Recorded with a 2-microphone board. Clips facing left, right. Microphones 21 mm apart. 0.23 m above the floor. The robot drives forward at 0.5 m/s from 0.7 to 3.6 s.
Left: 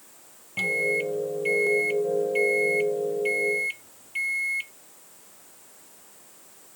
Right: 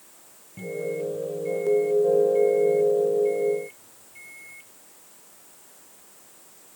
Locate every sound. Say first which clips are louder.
0.6 s a microwave: left 5 dB; 80° left; by 4.7 s 75° left (ahead or behind)